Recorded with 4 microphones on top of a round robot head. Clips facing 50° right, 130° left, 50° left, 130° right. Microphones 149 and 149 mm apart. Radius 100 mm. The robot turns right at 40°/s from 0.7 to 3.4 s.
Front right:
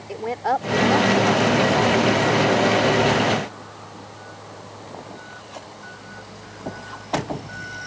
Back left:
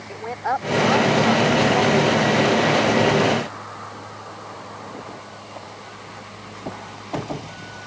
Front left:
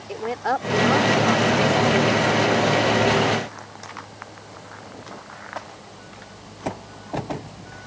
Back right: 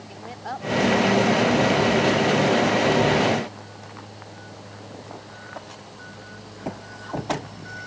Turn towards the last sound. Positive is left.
turn(degrees=125)